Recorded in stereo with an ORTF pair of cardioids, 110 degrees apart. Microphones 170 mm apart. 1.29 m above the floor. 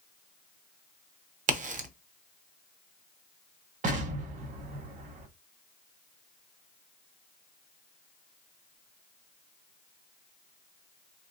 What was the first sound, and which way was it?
A crack, 50° right.